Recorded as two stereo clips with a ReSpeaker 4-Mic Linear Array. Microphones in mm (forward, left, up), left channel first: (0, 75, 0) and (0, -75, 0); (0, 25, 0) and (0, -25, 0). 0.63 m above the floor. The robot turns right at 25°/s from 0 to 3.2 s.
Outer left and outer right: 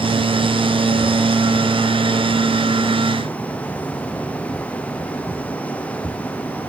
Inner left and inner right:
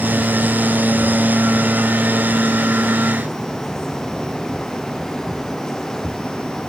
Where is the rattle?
I don't hear a rattle.